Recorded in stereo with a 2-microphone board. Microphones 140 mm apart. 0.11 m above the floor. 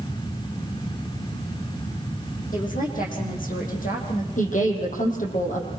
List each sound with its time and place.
2.5 s a woman speaking: 70° left (ahead or behind), 6 m; by 4.3 s 75° left (ahead or behind), 6 m
4.4 s a woman speaking: 65° left (ahead or behind), 5.5 m